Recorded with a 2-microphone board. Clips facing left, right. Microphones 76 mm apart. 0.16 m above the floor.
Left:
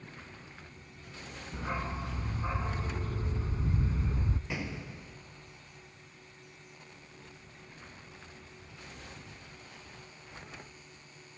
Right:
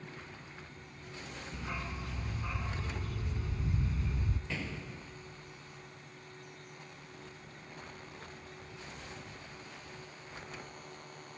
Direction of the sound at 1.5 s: 35° left (ahead or behind).